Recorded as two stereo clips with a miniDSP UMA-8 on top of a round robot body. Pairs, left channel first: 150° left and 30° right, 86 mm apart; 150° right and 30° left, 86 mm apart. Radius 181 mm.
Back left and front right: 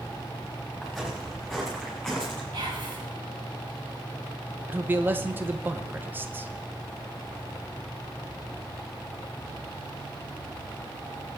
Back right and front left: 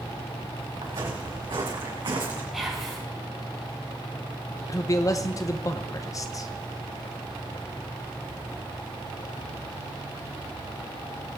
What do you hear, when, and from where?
0.8 s footsteps: 60° left, 5 m; by 2.4 s 65° left, 4 m
2.5 s whispering: 55° right, 5 m
4.7 s a man speaking: 100° right, 0.9 m